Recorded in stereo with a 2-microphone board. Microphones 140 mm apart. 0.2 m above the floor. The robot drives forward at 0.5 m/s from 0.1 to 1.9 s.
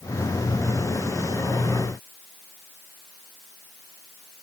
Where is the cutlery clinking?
I don't hear cutlery clinking.